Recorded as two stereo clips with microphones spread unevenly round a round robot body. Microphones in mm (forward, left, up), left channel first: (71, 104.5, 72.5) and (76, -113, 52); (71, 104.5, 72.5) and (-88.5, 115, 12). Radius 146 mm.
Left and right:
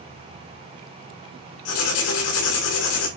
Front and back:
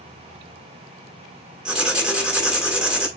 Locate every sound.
1.6 s writing: 95° left, 2.5 m